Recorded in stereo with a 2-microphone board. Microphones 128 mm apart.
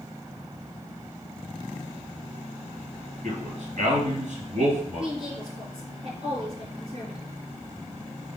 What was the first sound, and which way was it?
A man speaking, 70° right (ahead or behind).